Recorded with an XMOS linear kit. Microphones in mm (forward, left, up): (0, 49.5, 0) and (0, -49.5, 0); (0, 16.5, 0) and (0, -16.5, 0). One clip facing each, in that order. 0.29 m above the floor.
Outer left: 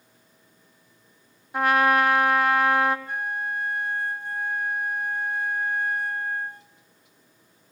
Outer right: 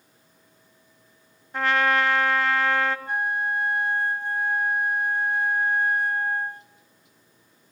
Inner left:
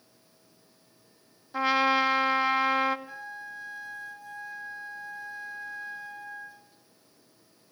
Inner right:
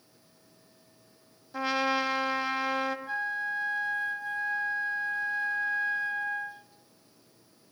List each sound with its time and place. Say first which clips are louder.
1.5 s a trumpet: outer left 2 dB, inner left 4 dB; 10° left (ahead or behind), 2 m
3.1 s a flute: outer right 4 dB, inner right 9 dB; 55° right (ahead or behind), 1.7 m